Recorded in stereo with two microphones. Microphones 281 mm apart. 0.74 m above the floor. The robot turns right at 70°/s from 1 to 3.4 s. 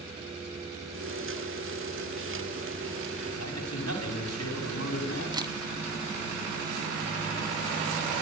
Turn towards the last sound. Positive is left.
turn(degrees=-15)  # may be behind; listen again after turning